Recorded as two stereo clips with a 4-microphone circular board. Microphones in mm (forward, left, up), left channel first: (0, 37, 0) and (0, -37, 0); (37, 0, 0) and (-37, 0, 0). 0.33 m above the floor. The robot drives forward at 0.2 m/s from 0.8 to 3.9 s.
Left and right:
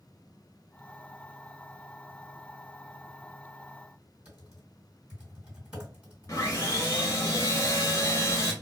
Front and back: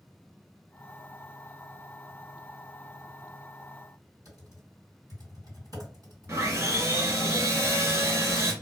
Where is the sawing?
135° left, 1.5 m.